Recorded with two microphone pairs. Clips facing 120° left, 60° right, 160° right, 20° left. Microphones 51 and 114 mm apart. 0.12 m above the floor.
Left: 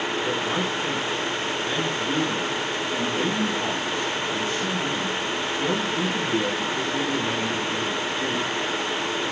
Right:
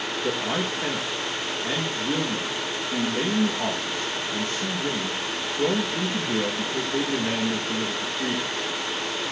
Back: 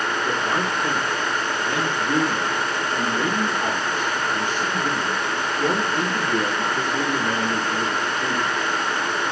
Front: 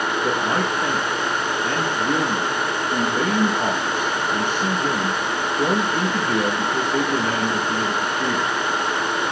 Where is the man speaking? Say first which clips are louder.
Left 1 dB, front 3 dB; 15° right, 5.5 m.